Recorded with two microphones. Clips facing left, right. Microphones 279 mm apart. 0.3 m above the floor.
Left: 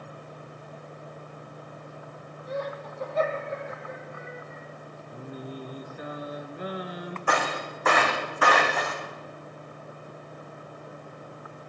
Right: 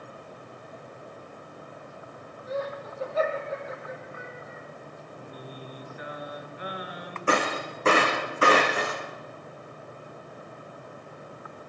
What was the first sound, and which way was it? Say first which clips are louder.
Laughter: right 1 dB; 5° right (ahead or behind).